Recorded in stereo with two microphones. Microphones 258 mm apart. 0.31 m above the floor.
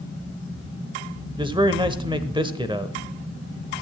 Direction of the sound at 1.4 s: 20° right (ahead or behind).